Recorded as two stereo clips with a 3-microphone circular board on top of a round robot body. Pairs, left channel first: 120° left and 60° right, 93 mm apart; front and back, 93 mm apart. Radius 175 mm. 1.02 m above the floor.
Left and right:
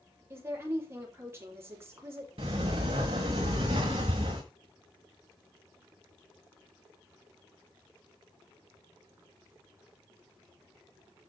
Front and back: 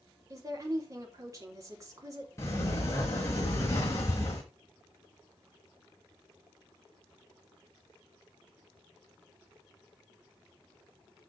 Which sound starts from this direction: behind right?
A woman speaking, at 0.3 s.